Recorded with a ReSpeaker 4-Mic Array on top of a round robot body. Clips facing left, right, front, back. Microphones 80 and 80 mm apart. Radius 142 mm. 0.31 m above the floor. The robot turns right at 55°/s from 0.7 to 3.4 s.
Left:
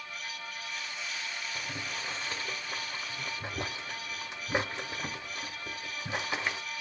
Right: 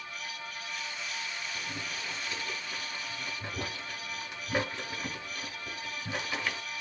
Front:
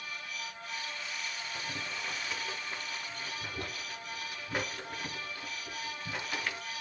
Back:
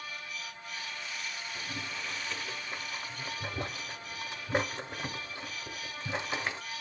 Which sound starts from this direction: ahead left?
Boiling, at 1.6 s.